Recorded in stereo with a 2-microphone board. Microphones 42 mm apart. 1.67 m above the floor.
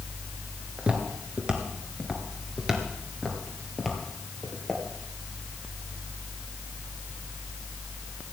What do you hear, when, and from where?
0.8 s footsteps: 30° right (ahead or behind), 1.8 m; by 4.8 s centre (ahead or behind), 2.5 m